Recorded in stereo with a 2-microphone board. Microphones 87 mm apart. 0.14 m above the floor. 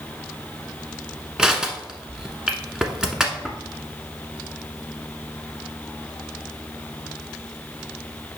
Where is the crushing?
5° right (ahead or behind), 1.1 m.